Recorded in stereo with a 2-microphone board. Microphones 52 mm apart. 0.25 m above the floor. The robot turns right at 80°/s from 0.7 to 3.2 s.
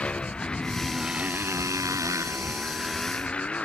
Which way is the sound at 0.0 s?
20° left (ahead or behind).